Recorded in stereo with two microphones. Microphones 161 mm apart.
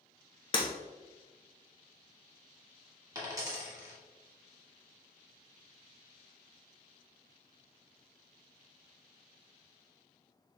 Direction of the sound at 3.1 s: 20° right (ahead or behind).